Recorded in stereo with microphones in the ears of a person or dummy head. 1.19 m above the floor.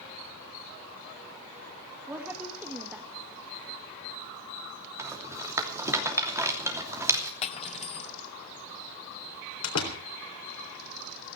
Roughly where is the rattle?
Centre.